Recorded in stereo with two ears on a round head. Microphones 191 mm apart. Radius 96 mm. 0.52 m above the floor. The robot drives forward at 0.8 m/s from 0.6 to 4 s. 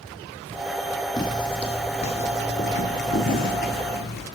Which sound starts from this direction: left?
Footsteps, at 1.2 s.